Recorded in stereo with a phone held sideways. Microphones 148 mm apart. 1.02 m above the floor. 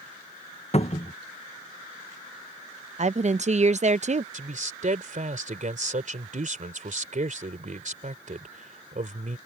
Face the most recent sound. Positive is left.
turn(degrees=-60)  # may be behind; listen again after turning